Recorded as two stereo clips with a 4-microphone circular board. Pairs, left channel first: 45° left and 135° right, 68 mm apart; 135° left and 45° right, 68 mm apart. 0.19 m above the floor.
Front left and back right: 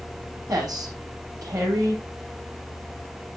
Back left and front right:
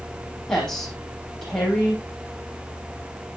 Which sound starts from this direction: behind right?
A woman speaking, at 0.5 s.